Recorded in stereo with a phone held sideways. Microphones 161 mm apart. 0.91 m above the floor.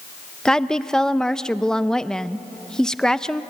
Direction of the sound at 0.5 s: 5° left (ahead or behind).